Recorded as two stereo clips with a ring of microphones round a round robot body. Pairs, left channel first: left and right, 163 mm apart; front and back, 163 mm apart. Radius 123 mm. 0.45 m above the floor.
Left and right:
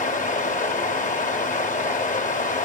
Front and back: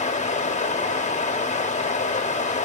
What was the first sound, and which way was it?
Running water, 50° left.